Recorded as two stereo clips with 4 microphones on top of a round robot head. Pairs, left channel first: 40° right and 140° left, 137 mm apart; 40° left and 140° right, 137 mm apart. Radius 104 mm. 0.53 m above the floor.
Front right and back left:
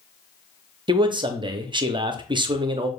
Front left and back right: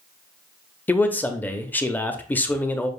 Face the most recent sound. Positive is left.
turn(degrees=110)